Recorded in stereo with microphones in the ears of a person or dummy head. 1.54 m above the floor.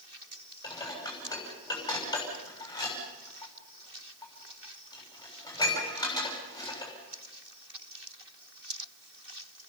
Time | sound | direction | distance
0.6 | dishes clattering | 15° left (ahead or behind) | 6.5 m